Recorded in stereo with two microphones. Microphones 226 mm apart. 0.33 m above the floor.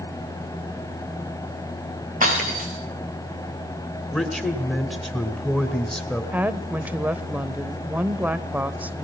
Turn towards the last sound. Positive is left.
turn(degrees=-5)  # may be behind; listen again after turning